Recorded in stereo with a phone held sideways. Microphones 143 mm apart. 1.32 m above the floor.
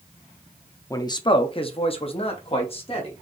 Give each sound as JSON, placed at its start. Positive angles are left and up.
{"t": 0.9, "sound": "a man speaking", "side_deg": 25, "distance_m": 0.5}